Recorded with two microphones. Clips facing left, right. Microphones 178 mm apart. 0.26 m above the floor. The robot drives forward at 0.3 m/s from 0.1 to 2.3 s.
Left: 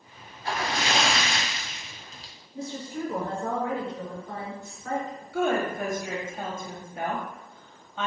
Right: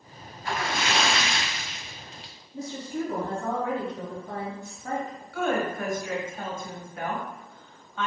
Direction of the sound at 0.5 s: 35° left (ahead or behind).